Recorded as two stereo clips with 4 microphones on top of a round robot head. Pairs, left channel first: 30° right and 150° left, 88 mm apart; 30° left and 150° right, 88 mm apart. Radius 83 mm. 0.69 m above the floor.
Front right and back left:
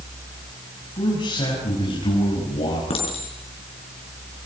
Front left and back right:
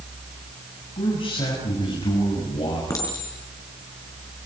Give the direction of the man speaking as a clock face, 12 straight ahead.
12 o'clock.